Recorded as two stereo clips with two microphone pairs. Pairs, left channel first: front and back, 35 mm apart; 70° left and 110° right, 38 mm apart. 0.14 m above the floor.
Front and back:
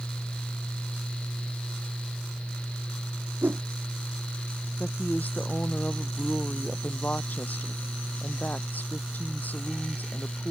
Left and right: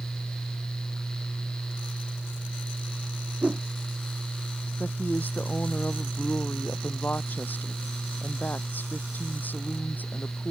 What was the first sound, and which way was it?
A whoosh, 160° right.